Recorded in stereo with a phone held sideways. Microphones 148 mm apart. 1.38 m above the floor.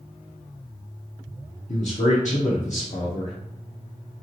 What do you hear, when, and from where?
1.7 s a man speaking: 55° left (ahead or behind), 0.6 m